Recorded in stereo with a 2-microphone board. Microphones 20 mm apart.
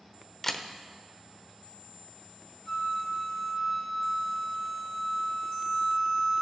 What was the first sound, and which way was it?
A camera shutter, 15° left (ahead or behind).